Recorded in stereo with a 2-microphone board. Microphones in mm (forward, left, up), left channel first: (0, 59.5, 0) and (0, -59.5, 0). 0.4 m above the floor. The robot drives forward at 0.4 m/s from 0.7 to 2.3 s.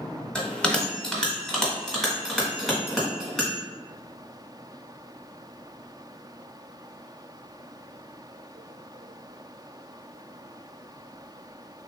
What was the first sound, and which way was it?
A bell, 10° left (ahead or behind).